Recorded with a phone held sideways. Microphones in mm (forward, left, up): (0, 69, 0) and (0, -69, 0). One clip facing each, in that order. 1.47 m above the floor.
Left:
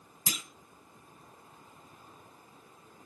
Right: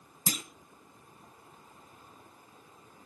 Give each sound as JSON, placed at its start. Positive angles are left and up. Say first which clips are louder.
{"t": 0.3, "sound": "a clunk", "louder": "right 5 dB", "side_deg": -40, "distance_m": 1.1}